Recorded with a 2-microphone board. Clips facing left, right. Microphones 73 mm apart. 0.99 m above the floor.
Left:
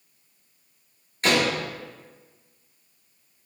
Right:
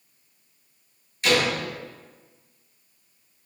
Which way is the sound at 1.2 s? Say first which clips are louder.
Even; 40° left (ahead or behind).